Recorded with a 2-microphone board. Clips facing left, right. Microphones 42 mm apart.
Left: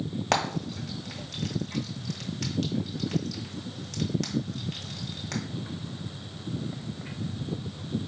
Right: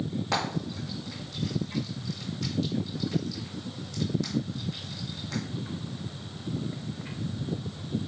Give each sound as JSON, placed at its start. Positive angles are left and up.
{"t": 0.3, "sound": "frying", "side_deg": 80, "distance_m": 1.2}